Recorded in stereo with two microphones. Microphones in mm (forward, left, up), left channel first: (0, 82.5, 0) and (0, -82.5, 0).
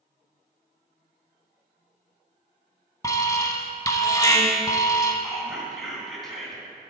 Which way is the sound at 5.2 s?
Centre (ahead or behind).